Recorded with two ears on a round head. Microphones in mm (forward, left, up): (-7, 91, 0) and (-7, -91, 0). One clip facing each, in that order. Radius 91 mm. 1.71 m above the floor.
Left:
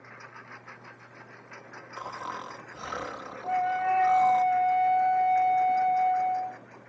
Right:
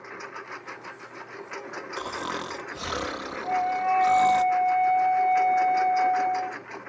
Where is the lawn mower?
60° right (ahead or behind); by 6.9 s 80° right.